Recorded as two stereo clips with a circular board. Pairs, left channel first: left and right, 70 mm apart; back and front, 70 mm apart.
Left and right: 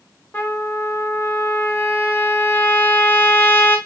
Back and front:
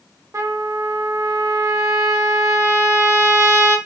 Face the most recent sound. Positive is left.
turn(degrees=35)